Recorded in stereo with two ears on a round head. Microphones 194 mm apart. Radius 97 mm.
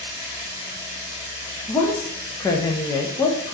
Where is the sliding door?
No sliding door in this recording.